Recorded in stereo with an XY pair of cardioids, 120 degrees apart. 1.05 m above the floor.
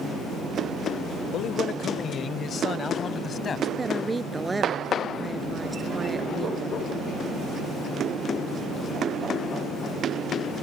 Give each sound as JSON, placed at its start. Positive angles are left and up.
{"t": 1.3, "sound": "a man speaking", "azimuth_deg": 60}
{"t": 3.8, "sound": "a woman speaking", "azimuth_deg": -15}